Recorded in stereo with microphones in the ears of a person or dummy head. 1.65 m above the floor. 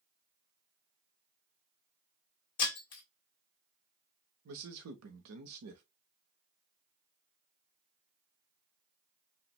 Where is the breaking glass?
30° left (ahead or behind), 2.0 m.